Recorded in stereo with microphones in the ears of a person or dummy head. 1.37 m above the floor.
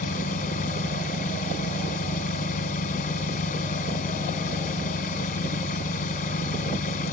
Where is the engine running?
50° left (ahead or behind).